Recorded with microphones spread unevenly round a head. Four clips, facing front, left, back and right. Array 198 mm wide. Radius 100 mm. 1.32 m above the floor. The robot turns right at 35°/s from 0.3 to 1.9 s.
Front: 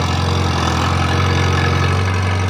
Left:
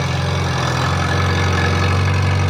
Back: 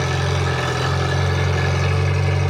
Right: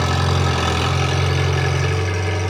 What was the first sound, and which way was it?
An engine running, 15° right.